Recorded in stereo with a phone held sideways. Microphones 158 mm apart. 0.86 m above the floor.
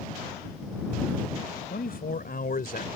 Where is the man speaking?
75° left (ahead or behind); by 2.9 s 70° left (ahead or behind).